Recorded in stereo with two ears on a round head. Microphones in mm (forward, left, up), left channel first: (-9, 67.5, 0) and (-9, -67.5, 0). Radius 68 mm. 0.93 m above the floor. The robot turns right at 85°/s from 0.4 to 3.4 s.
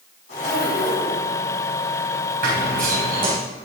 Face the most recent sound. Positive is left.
turn(degrees=-20)